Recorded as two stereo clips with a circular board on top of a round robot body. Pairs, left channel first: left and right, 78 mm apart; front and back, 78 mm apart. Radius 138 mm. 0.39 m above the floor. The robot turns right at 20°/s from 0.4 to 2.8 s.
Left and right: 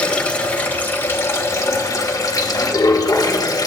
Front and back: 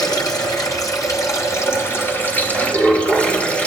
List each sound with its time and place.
0.0 s running water: 20° left, 1.6 m; by 3.7 s 70° left, 1.6 m